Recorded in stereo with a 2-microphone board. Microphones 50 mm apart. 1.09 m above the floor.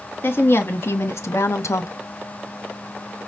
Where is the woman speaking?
45° left (ahead or behind), 1.9 m; by 1.9 s 75° left (ahead or behind), 1.0 m.